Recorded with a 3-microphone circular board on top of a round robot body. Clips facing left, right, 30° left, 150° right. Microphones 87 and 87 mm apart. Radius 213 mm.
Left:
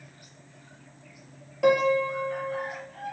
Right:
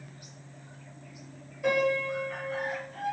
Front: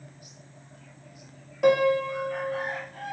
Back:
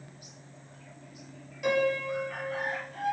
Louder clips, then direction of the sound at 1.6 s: Left 5 dB, front 6 dB; 75° left.